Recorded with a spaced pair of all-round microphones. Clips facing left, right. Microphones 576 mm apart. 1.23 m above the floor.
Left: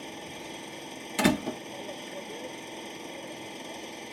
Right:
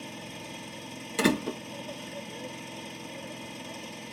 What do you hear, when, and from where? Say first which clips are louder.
0.0 s an engine running: left 1 dB; 35° right (ahead or behind)
1.2 s a door slam: even; 15° left (ahead or behind)